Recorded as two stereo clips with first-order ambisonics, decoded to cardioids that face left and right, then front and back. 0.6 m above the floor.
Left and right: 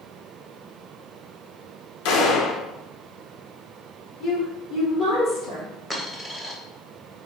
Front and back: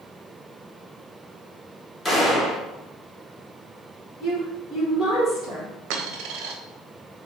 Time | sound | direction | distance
2.0 | a gunshot | 80° left | 0.7 m
4.2 | a woman speaking | 60° left | 1.6 m
5.9 | a dropped coin | 175° left | 0.5 m